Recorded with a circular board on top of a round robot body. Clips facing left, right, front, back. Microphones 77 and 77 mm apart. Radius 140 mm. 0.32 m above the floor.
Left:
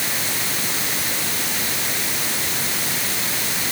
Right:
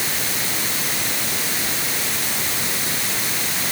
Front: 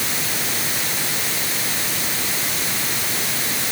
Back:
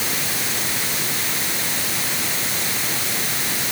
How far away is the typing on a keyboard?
I don't hear typing on a keyboard.